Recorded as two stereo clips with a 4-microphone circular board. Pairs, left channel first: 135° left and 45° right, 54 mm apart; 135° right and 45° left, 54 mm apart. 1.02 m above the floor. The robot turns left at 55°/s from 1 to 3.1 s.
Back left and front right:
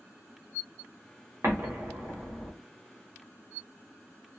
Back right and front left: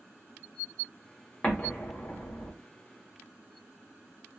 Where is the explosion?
75° right, 1.0 m; by 2.5 s 135° right, 1.0 m.